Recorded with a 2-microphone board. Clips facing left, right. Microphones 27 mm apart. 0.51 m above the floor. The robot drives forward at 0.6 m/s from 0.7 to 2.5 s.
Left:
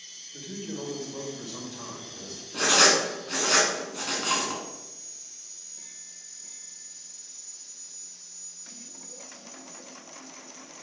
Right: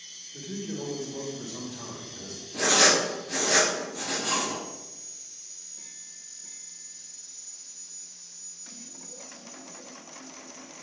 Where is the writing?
70° left (ahead or behind), 1.9 m.